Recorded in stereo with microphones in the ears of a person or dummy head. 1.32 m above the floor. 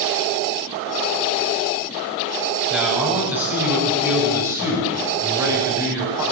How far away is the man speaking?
About 8.5 m.